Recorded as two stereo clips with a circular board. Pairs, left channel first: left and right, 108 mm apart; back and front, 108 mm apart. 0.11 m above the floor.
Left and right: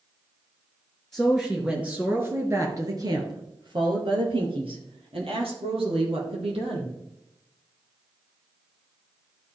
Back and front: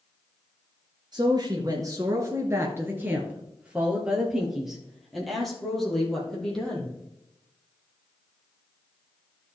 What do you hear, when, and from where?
1.1 s a woman speaking: 5° left, 1.6 m; by 6.9 s 95° right, 3.5 m